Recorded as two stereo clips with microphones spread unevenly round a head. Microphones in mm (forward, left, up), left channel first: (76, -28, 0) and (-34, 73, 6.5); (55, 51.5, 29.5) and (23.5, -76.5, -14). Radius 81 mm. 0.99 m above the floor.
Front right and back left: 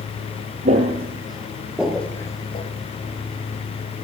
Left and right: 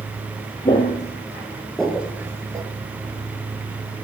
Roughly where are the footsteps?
Left.